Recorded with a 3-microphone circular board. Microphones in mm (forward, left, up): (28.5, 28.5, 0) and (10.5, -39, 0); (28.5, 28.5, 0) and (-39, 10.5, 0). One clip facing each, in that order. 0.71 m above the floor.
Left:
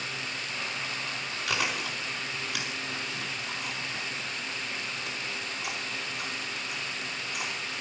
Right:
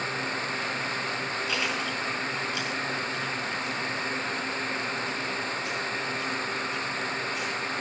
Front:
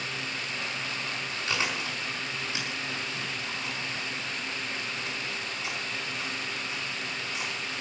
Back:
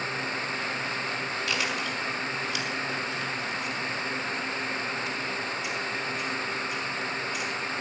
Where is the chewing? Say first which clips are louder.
Left 2 dB, front 1 dB; 75° left, 4.5 m.